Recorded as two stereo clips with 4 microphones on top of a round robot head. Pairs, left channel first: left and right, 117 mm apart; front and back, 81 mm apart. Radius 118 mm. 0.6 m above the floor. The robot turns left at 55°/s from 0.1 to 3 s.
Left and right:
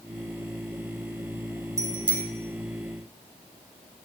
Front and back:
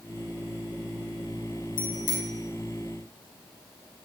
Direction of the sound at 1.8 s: 30° right.